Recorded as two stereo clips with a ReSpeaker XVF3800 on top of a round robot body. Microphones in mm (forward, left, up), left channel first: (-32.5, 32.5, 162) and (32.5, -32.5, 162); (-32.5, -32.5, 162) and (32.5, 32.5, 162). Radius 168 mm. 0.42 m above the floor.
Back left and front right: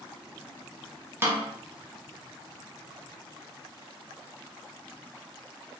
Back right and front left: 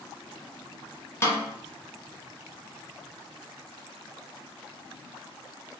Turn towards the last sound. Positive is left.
turn(degrees=-95)